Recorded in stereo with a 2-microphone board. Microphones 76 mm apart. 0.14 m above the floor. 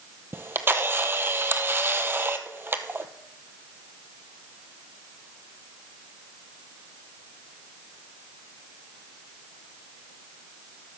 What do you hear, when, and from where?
0.3 s a camera shutter: 30° right (ahead or behind), 0.7 m